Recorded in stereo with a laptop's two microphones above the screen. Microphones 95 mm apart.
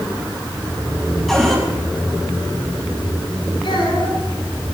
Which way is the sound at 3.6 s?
60° left (ahead or behind).